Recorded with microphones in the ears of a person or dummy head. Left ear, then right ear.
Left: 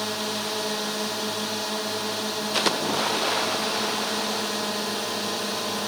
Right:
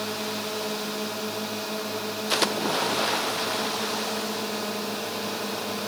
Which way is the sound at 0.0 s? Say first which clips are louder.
Left 2 dB; 25° left (ahead or behind).